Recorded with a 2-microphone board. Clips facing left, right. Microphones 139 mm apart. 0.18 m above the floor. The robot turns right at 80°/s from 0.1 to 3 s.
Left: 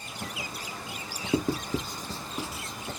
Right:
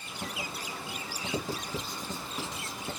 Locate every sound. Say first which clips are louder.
1.3 s writing: left 8 dB; 55° left (ahead or behind), 0.6 m; by 2.9 s 20° right (ahead or behind), 0.6 m